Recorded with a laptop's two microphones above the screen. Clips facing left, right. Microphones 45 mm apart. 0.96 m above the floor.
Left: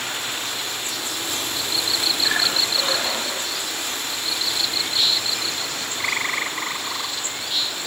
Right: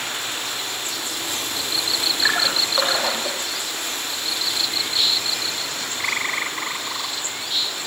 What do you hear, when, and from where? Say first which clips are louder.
2.2 s a splash: right 3 dB; 55° right (ahead or behind), 8.5 m